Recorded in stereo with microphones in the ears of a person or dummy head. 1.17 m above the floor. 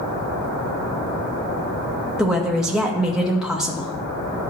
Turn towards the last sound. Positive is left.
turn(degrees=5)  # may be behind; listen again after turning